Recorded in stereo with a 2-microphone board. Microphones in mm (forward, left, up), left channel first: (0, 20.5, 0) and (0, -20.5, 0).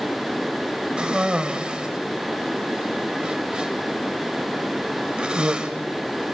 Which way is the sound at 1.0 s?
20° right (ahead or behind).